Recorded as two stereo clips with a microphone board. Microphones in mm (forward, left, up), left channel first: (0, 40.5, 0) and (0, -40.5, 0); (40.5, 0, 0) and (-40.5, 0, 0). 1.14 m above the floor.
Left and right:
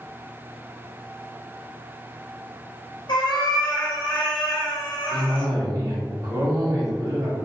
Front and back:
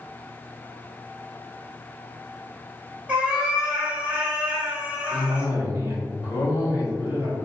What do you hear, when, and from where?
3.1 s a cat meowing: 105° left, 1.3 m
5.1 s a cough: 40° right, 1.8 m